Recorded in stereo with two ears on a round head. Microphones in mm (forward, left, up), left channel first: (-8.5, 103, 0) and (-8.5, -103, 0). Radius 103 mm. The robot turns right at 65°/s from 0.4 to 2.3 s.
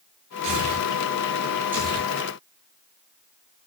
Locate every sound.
0.4 s tearing paper: 85° right, 7.5 m; by 2.1 s 15° left (ahead or behind), 7.5 m